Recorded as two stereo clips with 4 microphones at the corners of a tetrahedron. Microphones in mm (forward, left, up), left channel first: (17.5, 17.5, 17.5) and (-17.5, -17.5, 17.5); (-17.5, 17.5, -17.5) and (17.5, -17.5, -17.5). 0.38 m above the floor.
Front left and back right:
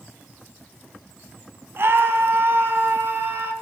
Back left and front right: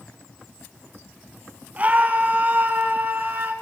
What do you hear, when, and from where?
1.8 s a scream: 105° right, 2.5 m; by 3.5 s 95° right, 3.5 m